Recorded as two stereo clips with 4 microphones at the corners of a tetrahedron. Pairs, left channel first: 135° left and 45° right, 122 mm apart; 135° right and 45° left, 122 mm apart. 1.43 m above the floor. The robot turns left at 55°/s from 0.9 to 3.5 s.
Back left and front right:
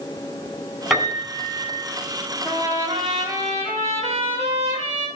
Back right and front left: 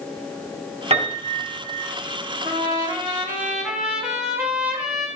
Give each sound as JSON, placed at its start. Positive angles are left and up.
{"t": 0.9, "sound": "a piano", "azimuth_deg": 45, "distance_m": 3.0}
{"t": 2.4, "sound": "a trumpet", "azimuth_deg": 20, "distance_m": 3.5}